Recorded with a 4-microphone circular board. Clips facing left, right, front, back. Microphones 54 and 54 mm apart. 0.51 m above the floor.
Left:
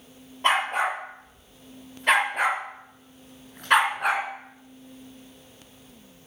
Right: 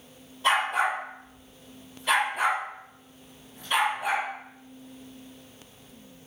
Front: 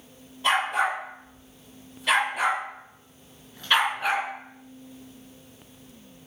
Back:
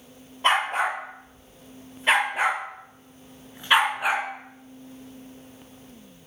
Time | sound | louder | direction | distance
0.4 | a dog barking | left 1 dB, back 1 dB | 130° left | 5.5 m